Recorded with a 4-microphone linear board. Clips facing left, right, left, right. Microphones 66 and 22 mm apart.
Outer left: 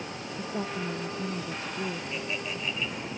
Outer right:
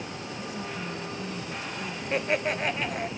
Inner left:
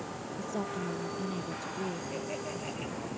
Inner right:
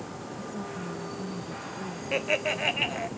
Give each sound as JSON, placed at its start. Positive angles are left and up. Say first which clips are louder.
{"t": 0.4, "sound": "a woman speaking", "louder": "outer left 4 dB, inner left 3 dB", "side_deg": 40}
{"t": 2.1, "sound": "laughter", "louder": "outer right 7 dB, inner right 10 dB", "side_deg": -65}